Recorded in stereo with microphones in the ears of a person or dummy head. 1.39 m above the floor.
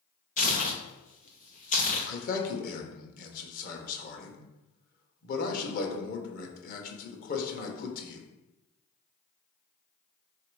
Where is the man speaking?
50° left (ahead or behind), 1.0 m.